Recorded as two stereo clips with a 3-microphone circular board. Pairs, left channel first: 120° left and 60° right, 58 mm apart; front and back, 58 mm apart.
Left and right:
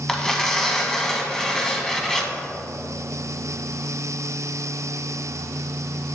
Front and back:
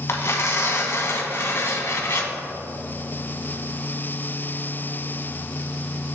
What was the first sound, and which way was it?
Tearing paper, 40° left.